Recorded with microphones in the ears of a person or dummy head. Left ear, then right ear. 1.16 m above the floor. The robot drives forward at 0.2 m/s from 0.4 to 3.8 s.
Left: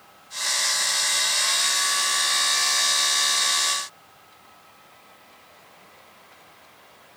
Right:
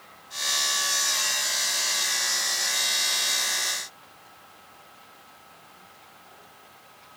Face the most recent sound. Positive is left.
No sound to turn to.